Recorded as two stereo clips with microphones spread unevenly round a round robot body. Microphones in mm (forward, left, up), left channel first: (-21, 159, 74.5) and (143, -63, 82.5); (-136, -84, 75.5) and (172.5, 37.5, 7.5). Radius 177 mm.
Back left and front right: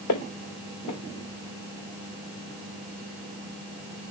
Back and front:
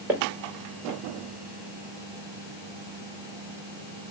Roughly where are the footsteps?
Left.